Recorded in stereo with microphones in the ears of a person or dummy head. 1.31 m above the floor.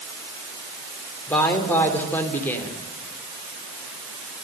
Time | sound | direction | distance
1.3 | a woman speaking | 10° left (ahead or behind) | 3 m